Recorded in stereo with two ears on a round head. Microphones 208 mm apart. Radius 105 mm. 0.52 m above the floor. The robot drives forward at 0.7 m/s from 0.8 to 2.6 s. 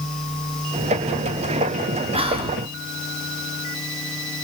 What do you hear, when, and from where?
2.1 s whispering: 25° right (ahead or behind), 0.9 m; by 2.6 s 20° right (ahead or behind), 0.9 m